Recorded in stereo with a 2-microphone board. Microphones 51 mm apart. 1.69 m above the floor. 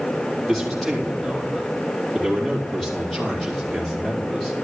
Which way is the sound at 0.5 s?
5° left (ahead or behind).